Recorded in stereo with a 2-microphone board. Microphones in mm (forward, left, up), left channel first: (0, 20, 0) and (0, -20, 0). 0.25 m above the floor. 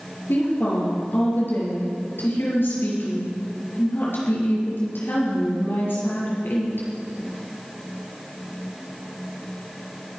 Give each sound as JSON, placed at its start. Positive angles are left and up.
{"t": 0.3, "sound": "a woman speaking", "side_deg": 60, "distance_m": 5.0}